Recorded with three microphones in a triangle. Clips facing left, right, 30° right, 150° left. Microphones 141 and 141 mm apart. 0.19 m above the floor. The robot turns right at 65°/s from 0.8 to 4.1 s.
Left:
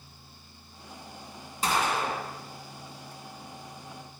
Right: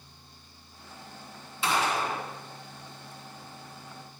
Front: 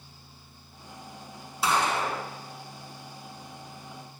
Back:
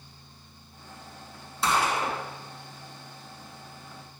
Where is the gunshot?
55° left, 2.0 m; by 2.2 s 95° left, 2.0 m.